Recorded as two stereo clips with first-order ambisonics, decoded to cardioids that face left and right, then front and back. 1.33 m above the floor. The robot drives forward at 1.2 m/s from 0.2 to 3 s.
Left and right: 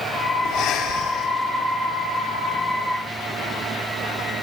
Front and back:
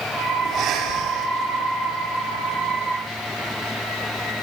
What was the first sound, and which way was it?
Breathing, 130° left.